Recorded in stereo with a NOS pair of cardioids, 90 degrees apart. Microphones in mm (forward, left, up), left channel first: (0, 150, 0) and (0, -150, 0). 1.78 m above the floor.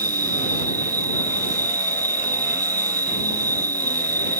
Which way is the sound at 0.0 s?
10° right.